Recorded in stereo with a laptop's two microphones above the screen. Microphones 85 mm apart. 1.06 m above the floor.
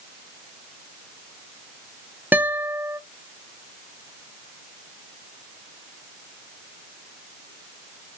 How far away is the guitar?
About 0.9 m.